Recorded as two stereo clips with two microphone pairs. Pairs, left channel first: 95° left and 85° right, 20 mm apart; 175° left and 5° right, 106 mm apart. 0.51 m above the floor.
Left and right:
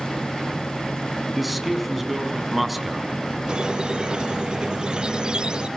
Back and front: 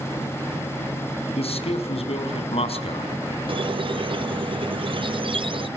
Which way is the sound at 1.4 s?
170° right.